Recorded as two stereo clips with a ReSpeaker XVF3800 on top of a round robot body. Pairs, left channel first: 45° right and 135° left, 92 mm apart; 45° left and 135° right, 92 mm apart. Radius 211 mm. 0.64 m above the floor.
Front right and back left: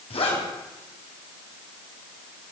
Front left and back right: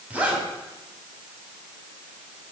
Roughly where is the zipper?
Ahead right.